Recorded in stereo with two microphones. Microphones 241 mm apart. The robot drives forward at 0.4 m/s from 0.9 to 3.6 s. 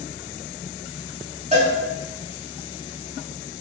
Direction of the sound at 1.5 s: 30° right (ahead or behind).